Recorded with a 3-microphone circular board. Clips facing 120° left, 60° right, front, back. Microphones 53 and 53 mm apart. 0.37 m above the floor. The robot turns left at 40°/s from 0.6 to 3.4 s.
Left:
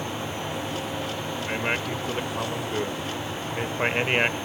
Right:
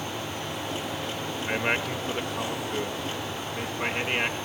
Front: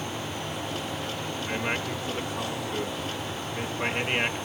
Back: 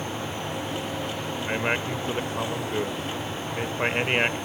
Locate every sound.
1.4 s a man speaking: 135° right, 0.9 m; by 4.3 s 145° left, 0.9 m